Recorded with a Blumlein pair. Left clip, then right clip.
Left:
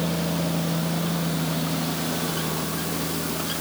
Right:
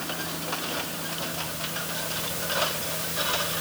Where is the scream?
No scream in this recording.